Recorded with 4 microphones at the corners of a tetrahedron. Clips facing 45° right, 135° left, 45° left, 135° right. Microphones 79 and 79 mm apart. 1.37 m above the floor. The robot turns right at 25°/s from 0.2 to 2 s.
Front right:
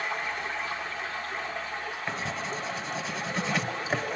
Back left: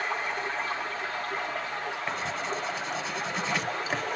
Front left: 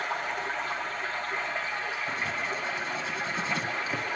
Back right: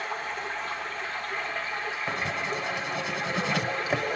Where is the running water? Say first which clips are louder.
Back left 1 dB, front left 1 dB; 75° left, 9 m; by 4.2 s 120° left, 9 m.